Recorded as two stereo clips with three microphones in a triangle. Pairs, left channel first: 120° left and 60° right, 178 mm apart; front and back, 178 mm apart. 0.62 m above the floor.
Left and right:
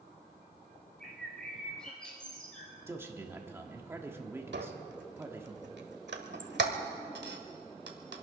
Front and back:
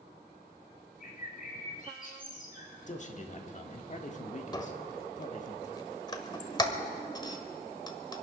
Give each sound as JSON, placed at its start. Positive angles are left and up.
{"t": 1.0, "sound": "a bird", "azimuth_deg": 35, "distance_m": 3.0}
{"t": 2.9, "sound": "a man speaking", "azimuth_deg": 10, "distance_m": 1.5}
{"t": 4.5, "sound": "a squeak", "azimuth_deg": -65, "distance_m": 1.3}